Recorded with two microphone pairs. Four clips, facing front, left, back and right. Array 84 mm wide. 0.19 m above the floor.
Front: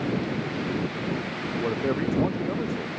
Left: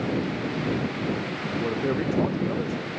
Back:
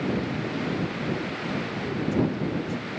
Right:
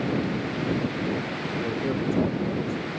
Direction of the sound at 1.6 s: 25° left.